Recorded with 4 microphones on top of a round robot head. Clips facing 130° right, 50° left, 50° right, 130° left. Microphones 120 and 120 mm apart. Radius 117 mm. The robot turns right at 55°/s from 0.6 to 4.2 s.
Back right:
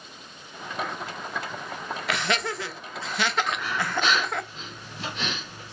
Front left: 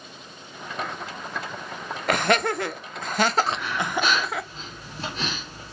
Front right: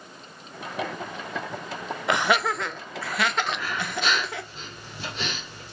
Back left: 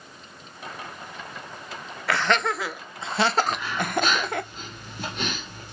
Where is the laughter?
15° left, 0.5 m; by 4.4 s 135° left, 0.5 m.